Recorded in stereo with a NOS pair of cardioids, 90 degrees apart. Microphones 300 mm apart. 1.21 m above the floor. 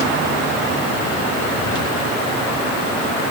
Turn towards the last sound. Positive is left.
No sound to turn to.